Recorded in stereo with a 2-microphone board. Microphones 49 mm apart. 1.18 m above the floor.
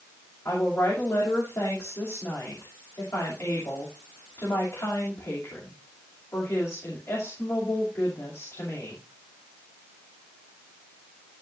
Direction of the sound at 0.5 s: 75° left (ahead or behind).